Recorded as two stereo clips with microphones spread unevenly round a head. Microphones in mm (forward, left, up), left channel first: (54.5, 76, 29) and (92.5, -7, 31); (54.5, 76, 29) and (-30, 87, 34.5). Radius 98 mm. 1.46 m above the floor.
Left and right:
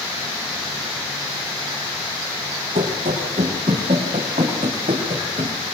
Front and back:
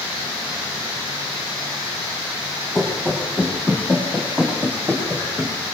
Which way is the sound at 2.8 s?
100° right.